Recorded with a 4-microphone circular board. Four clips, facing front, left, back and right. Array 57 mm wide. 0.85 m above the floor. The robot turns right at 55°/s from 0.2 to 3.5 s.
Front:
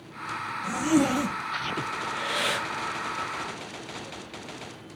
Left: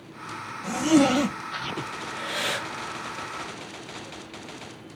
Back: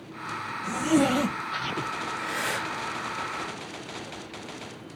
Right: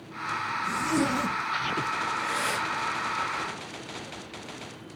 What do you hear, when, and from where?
0.6 s a zipper: 85° left, 2.5 m; by 1.9 s 155° left, 2.5 m
2.0 s breathing: 15° left, 5 m; by 2.7 s 50° left, 5 m